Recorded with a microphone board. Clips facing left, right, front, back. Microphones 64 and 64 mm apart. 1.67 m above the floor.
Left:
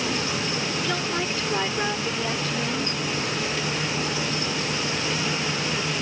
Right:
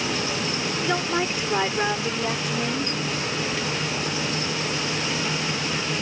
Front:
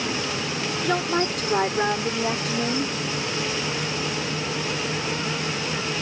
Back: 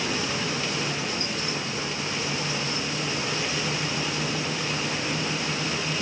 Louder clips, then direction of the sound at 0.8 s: Right 2 dB, front 7 dB; 20° right.